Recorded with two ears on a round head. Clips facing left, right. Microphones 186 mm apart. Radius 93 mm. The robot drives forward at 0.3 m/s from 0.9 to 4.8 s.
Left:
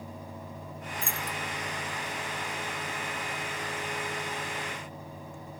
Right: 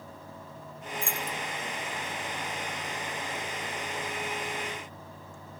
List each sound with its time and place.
1.0 s keys jangling: centre (ahead or behind), 0.7 m